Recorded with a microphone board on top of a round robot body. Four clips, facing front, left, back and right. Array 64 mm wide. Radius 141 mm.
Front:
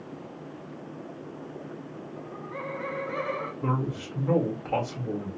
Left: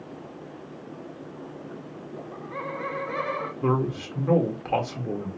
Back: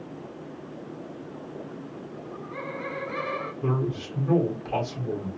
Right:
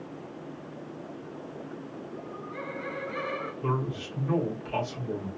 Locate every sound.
2.1 s laughter: 65° left, 2.5 m
3.6 s a man speaking: 75° left, 1.6 m